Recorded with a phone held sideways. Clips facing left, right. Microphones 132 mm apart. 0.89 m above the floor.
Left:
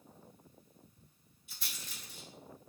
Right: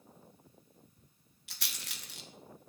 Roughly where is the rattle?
Right.